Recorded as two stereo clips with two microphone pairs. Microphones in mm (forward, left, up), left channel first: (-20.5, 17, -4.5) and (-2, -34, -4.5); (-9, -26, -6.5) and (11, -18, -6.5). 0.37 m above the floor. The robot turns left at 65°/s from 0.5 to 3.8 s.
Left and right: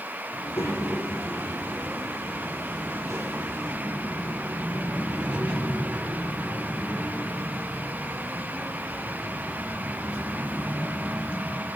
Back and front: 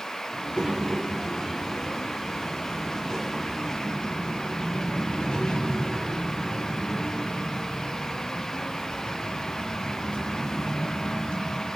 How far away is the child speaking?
About 7.5 m.